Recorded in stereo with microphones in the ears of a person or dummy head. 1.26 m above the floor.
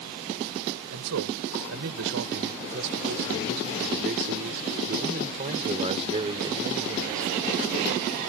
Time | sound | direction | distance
0.9 | a man speaking | 85° right | ?